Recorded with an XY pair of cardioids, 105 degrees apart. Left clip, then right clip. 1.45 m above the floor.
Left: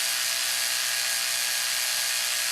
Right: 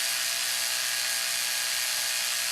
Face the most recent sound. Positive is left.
turn(degrees=15)